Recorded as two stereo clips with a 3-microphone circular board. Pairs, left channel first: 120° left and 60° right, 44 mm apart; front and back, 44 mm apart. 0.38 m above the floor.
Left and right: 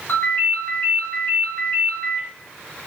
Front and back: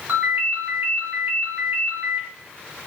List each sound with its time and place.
0.1 s a ringtone: 145° left, 2 m